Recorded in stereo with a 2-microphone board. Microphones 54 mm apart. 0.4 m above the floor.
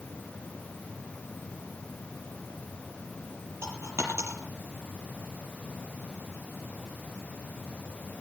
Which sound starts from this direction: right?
A dropped coin, at 3.6 s.